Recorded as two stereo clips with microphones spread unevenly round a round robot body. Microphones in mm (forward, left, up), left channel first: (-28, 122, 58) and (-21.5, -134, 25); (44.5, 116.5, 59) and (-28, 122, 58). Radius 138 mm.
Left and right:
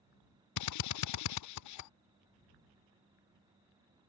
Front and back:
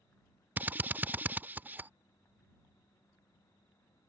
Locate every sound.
0.6 s a drill: 105° left